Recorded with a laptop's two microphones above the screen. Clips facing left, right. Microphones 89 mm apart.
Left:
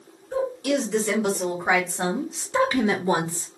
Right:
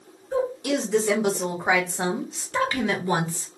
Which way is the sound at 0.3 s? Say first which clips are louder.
Even; 10° right (ahead or behind).